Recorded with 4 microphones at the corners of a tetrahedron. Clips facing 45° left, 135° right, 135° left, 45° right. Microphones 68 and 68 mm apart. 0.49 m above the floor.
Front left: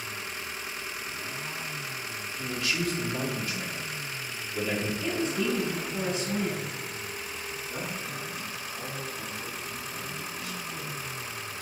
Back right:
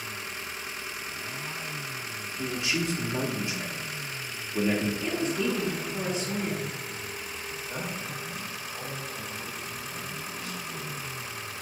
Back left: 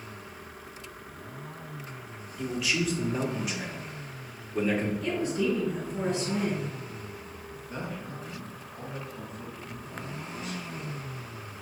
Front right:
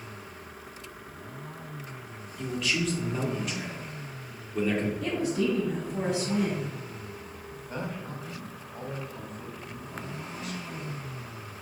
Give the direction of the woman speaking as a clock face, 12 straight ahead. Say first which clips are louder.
Even, front right 1 dB; 2 o'clock.